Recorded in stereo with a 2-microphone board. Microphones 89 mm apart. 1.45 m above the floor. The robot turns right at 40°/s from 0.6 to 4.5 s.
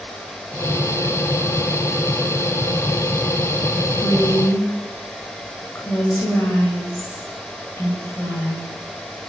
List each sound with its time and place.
4.0 s a woman speaking: 55° left (ahead or behind), 9 m; by 8.7 s 35° left (ahead or behind), 9 m